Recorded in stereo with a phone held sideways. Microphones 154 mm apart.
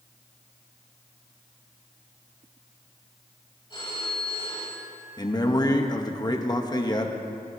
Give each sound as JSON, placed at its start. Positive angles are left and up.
{"t": 3.7, "sound": "a phone ringing", "side_deg": 30, "distance_m": 4.0}
{"t": 5.2, "sound": "a man speaking", "side_deg": 25, "distance_m": 1.0}